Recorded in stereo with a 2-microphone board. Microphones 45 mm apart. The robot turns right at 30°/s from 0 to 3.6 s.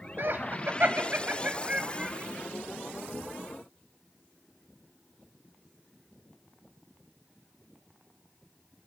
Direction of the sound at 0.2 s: 55° right (ahead or behind).